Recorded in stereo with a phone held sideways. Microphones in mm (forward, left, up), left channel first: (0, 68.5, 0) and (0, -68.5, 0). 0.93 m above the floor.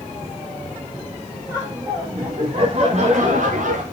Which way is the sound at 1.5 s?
10° right (ahead or behind).